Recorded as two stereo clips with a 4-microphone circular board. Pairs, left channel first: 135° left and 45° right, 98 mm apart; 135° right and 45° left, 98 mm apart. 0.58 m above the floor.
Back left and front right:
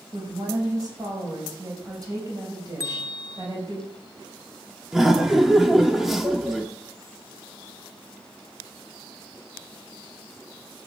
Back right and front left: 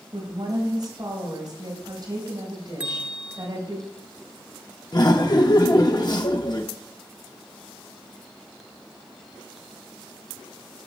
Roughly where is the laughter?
Behind right.